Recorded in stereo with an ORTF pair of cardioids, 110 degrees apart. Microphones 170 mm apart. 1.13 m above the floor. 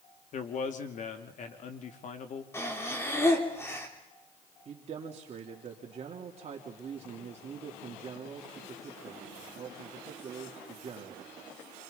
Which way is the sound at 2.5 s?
15° left.